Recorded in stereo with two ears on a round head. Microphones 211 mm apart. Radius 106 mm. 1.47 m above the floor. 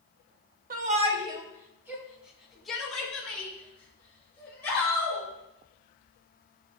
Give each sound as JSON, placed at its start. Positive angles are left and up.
{"t": 0.7, "sound": "a shout", "side_deg": -35, "distance_m": 1.2}